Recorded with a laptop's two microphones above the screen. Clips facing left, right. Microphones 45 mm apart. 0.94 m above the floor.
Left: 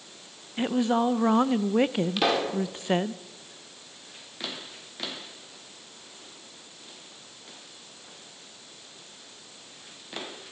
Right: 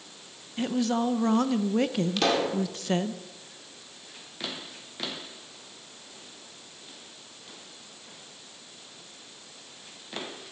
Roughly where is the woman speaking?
Left.